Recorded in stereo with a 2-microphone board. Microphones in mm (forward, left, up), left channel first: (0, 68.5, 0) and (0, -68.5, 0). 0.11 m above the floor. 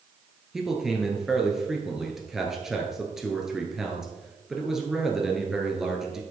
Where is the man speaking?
5° right (ahead or behind), 1.8 m.